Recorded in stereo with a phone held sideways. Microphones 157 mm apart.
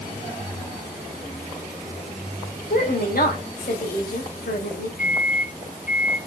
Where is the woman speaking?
80° left, 5 m.